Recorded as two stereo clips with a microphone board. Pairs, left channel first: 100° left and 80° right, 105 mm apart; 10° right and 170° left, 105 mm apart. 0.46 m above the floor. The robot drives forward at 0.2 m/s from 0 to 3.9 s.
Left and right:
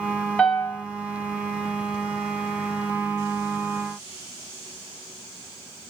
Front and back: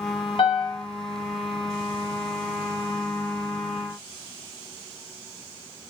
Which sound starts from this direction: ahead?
A piano, at 0.4 s.